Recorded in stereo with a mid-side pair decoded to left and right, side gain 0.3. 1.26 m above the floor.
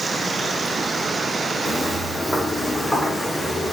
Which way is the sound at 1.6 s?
45° left.